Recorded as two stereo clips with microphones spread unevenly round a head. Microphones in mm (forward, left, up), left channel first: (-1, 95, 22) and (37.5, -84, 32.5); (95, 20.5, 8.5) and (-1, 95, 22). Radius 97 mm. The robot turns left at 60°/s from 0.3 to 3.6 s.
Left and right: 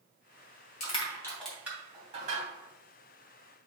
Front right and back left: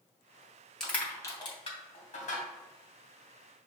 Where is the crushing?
50° left, 2.5 m; by 2.5 s 45° right, 2.5 m.